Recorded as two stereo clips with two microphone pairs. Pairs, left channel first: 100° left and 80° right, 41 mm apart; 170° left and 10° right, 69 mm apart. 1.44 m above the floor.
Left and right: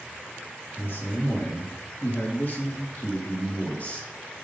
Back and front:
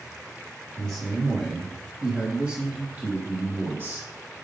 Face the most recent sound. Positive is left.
turn(degrees=45)